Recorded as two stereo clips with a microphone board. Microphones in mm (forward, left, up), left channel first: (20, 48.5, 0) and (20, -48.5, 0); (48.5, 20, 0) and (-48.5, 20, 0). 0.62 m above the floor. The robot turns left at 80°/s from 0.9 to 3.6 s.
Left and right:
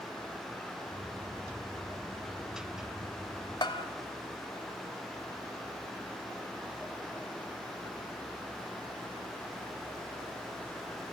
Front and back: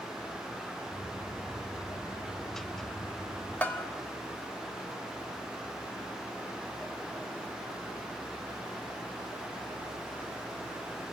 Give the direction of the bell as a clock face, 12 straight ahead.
10 o'clock.